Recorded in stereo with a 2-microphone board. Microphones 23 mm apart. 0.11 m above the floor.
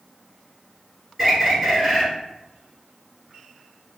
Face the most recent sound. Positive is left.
turn(degrees=-5)  # may be behind; listen again after turning